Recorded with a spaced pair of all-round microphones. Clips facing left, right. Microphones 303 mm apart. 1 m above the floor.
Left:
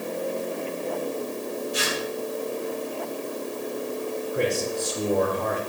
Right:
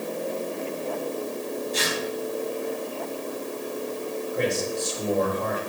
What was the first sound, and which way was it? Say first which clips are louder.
Tearing paper: even; 15° left (ahead or behind).